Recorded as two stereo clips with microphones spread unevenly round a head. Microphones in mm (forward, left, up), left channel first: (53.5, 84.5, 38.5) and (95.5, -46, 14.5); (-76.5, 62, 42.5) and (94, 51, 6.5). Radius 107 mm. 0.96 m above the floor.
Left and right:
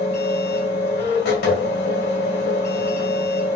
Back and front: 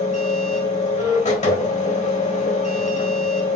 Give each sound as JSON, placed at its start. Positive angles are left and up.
{"t": 0.0, "sound": "a machine running", "azimuth_deg": 125, "distance_m": 2.5}